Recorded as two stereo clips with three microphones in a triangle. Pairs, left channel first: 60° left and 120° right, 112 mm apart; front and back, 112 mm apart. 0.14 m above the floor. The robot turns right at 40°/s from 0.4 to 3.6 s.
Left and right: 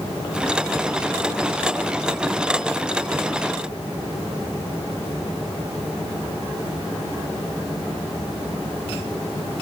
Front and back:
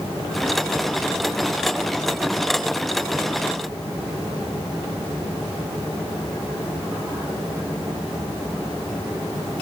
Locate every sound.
Only background noise.